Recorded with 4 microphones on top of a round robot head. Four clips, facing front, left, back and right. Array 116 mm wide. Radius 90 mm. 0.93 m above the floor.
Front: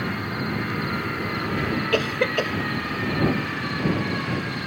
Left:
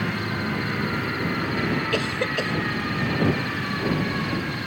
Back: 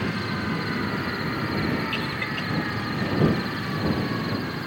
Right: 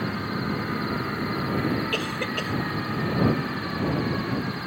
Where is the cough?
15° left.